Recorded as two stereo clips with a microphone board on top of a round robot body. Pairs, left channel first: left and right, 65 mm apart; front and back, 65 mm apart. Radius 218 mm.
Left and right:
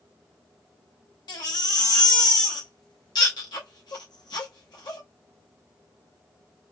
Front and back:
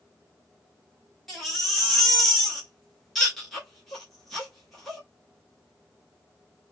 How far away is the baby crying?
About 0.8 m.